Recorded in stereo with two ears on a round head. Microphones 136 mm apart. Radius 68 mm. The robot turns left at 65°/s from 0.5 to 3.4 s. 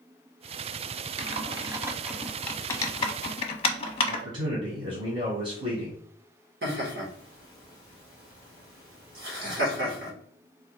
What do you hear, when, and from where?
1.2 s typing on a keyboard: 40° right (ahead or behind), 0.7 m; by 4.2 s 40° left (ahead or behind), 0.7 m
4.1 s a man speaking: 35° right (ahead or behind), 1.6 m
6.6 s laughter: 75° right (ahead or behind), 1.8 m